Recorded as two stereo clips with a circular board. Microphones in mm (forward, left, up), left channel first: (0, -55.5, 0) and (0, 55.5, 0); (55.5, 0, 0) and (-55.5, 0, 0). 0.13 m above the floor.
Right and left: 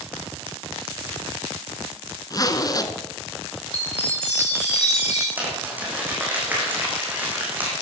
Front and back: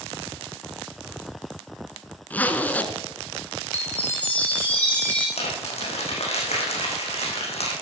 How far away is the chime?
About 6 m.